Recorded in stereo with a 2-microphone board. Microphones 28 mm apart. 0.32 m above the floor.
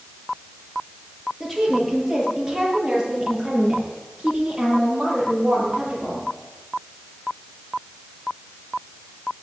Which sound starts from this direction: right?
A woman speaking, at 1.4 s.